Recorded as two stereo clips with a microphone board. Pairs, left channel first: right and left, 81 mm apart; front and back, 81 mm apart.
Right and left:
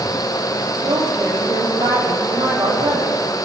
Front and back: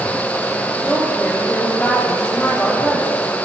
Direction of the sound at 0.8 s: 70° left.